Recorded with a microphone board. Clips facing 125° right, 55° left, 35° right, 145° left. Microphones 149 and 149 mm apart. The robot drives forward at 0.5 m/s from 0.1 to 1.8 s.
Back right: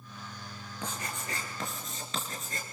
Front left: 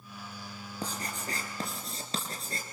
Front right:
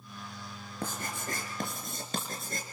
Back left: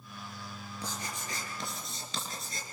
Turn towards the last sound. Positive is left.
turn(degrees=0)